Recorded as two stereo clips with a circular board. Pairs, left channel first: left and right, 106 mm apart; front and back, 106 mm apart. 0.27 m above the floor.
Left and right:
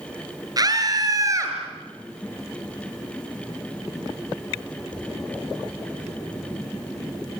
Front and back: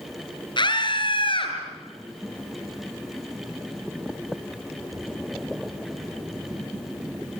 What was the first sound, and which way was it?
A scream, 40° right.